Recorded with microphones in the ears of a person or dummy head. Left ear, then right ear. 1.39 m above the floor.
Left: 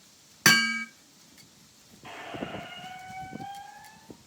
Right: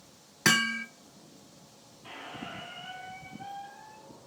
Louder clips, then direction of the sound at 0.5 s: Left 4 dB; 25° left (ahead or behind).